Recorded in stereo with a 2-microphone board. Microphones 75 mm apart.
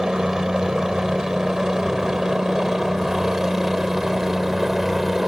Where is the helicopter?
10° right (ahead or behind); by 5.3 s 5° right (ahead or behind).